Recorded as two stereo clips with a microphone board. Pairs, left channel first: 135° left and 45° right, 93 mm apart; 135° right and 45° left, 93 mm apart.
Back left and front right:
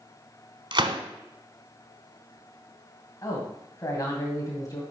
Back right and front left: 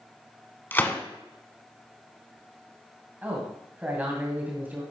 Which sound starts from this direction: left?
A man speaking, at 3.2 s.